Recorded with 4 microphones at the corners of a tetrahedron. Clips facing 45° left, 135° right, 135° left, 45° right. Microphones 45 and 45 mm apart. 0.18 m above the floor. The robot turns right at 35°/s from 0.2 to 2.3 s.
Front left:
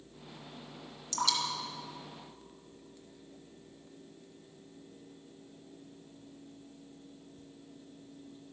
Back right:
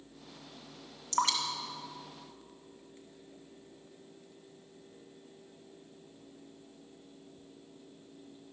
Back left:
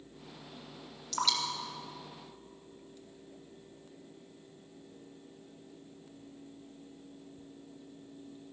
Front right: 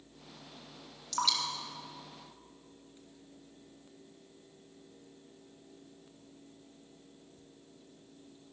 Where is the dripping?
140° right, 1.4 m; by 3.0 s 100° right, 1.4 m.